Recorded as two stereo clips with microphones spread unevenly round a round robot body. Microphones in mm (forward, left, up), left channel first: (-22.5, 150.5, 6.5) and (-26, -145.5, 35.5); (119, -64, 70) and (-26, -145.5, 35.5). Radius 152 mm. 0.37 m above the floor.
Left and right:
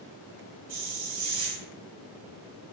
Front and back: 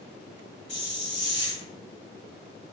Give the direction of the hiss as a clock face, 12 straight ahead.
1 o'clock.